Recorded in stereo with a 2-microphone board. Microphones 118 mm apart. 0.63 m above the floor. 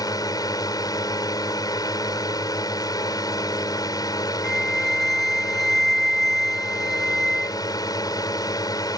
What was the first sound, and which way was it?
A drone, 35° left (ahead or behind).